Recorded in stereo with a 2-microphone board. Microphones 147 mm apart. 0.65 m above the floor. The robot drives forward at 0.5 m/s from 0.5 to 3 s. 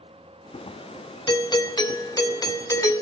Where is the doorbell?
30° left (ahead or behind), 1.2 m; by 3.0 s 20° left (ahead or behind), 1.5 m.